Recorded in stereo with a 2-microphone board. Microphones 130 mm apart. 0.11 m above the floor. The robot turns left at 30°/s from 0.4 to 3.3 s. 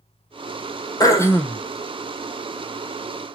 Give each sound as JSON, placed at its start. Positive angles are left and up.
{"t": 1.0, "sound": "throat clearing", "side_deg": 30, "distance_m": 0.7}